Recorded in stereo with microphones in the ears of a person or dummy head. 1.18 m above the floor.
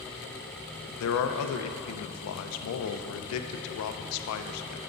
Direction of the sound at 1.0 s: 85° left.